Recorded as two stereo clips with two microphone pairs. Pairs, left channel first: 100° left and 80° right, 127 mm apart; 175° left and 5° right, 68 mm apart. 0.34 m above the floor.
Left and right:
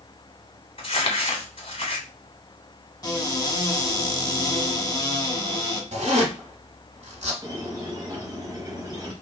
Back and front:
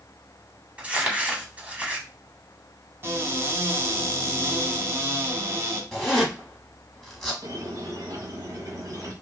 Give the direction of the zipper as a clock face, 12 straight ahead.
3 o'clock.